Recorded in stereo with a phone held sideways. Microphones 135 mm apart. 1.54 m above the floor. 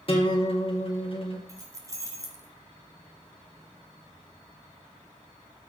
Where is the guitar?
45° left (ahead or behind), 2 m.